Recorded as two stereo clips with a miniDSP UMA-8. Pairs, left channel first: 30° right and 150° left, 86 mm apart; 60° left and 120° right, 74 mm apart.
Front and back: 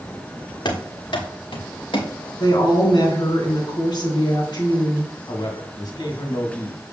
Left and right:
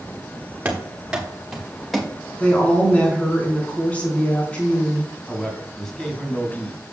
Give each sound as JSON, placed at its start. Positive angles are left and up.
{"t": 0.7, "sound": "running footsteps", "azimuth_deg": -50, "distance_m": 2.5}
{"t": 2.4, "sound": "a woman speaking", "azimuth_deg": -10, "distance_m": 3.5}
{"t": 5.3, "sound": "a man speaking", "azimuth_deg": -20, "distance_m": 2.0}